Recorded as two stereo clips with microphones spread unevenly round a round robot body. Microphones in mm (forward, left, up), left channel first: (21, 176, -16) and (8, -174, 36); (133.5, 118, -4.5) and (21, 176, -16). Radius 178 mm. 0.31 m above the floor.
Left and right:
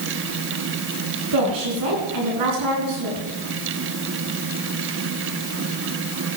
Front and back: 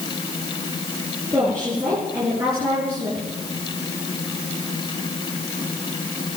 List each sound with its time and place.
1.3 s a woman speaking: 125° right, 4 m